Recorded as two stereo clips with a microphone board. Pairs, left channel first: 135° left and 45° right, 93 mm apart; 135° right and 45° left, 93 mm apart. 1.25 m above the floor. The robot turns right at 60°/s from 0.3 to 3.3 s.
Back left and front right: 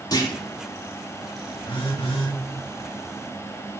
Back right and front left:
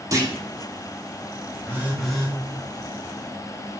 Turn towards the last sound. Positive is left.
turn(degrees=-150)